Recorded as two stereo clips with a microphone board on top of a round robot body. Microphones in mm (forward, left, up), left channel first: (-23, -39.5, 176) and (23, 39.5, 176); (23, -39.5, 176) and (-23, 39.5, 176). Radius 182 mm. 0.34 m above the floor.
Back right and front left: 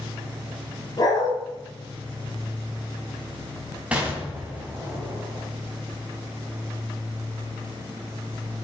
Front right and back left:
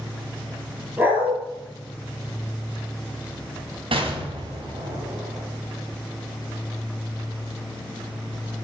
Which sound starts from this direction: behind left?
An explosion, at 3.9 s.